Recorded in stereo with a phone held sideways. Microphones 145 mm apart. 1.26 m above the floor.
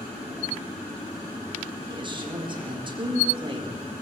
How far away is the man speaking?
About 5 m.